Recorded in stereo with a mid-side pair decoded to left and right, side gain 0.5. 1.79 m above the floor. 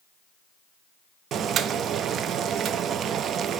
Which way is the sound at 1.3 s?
60° right.